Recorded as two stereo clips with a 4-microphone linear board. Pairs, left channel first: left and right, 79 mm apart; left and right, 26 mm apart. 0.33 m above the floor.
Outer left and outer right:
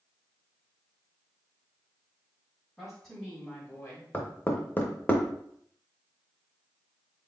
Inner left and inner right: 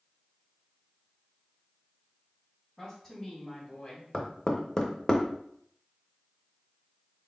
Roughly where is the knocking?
Left.